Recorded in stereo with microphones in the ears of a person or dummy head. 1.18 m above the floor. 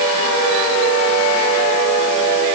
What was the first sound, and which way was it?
Only background noise.